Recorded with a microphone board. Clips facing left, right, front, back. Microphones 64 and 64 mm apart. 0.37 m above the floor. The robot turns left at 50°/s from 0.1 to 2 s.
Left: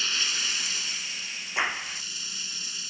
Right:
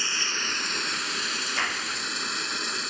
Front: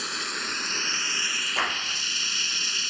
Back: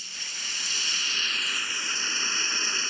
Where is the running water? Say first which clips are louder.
Right 2 dB, front 8 dB; 20° right; by 2.9 s 115° right.